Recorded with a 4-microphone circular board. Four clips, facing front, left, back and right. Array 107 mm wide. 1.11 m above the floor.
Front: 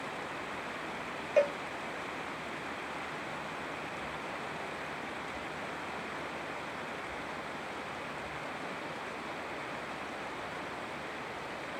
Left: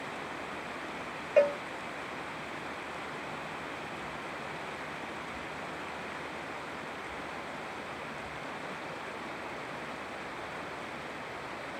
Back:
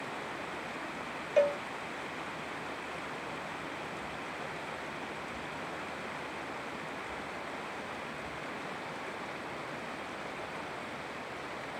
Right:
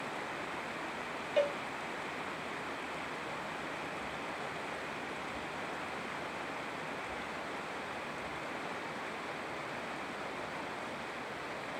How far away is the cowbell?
About 0.7 m.